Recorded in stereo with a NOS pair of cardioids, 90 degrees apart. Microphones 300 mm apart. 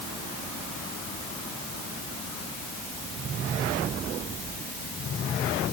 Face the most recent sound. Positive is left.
No sound to turn to.